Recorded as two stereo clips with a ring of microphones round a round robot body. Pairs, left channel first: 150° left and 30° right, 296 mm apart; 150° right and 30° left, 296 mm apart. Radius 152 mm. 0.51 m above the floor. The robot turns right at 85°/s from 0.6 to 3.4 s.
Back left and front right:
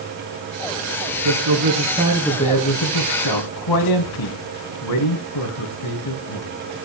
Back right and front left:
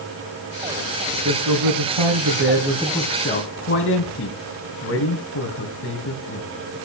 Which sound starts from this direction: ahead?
A man speaking, at 1.2 s.